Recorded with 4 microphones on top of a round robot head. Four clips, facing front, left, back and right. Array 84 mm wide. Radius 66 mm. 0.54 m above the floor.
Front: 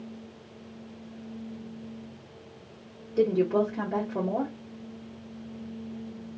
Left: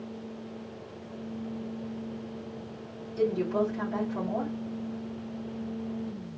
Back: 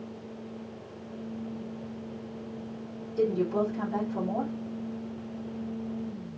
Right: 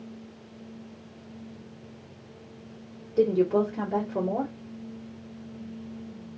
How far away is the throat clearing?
No throat clearing in this recording.